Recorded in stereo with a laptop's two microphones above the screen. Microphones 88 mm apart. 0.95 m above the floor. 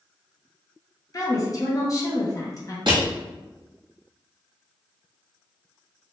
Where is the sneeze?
No sneeze in this recording.